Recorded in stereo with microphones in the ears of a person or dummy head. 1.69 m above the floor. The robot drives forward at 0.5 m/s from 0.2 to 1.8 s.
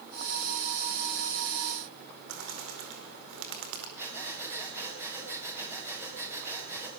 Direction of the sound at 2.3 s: 75° right (ahead or behind).